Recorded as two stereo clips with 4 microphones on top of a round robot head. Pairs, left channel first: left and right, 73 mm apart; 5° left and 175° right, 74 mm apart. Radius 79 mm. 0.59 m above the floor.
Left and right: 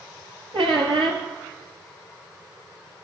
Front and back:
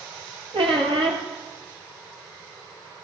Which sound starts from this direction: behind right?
A squeak, at 0.5 s.